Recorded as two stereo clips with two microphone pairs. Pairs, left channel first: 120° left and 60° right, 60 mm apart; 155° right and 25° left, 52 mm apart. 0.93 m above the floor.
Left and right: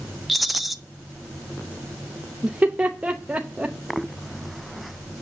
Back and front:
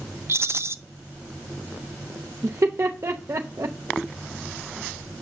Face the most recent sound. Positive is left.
turn(degrees=10)